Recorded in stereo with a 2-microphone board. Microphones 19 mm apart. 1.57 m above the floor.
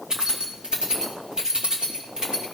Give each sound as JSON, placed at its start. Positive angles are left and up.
{"t": 0.1, "sound": "keys jangling", "side_deg": -45, "distance_m": 2.0}